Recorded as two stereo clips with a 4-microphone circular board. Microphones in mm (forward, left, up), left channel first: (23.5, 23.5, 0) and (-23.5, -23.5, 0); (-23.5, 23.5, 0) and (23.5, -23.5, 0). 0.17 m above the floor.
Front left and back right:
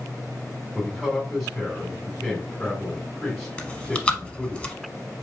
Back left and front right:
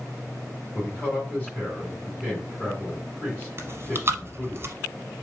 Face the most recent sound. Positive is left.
turn(degrees=-25)